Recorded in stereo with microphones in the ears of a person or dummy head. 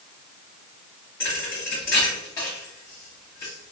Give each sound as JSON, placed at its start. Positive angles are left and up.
{"t": 1.2, "sound": "a thud", "side_deg": 15, "distance_m": 0.7}